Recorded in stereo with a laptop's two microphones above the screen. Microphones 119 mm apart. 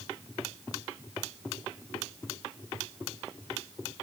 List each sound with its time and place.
Only background noise.